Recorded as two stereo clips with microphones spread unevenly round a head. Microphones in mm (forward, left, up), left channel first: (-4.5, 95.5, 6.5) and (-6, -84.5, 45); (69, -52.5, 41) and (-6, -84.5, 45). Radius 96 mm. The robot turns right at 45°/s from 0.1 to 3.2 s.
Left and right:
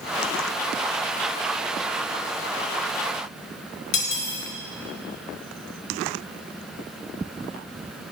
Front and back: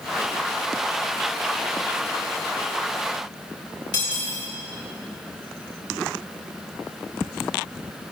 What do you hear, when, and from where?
3.9 s cutlery clinking: 75° left, 5.5 m